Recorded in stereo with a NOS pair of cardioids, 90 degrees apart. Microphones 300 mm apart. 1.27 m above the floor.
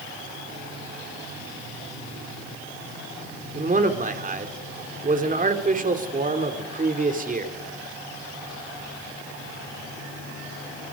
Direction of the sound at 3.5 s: 25° right.